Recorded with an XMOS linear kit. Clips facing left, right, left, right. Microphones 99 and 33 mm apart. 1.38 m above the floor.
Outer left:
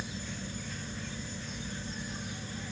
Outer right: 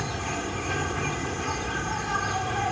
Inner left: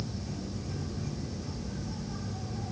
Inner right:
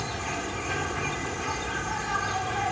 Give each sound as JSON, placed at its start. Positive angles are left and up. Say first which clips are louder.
{"t": 0.0, "sound": "an insect", "louder": "outer right 10 dB, inner right 8 dB", "side_deg": -75}